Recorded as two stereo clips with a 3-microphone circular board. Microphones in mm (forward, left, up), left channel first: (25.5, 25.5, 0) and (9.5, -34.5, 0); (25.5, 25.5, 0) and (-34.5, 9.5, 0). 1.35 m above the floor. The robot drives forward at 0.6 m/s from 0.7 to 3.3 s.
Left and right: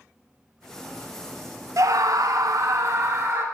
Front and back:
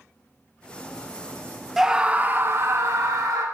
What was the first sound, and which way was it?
A scream, 80° right.